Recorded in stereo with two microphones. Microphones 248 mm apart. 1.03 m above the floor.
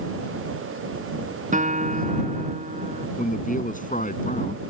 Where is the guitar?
30° right (ahead or behind).